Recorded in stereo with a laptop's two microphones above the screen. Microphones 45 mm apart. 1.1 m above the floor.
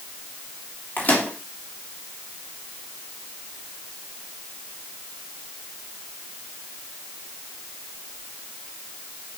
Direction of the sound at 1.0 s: 35° left (ahead or behind).